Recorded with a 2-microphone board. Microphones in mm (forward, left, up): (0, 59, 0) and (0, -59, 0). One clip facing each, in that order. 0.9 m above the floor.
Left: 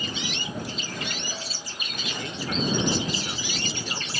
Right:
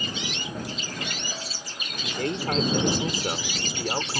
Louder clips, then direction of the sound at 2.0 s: Right 6 dB; 55° right (ahead or behind).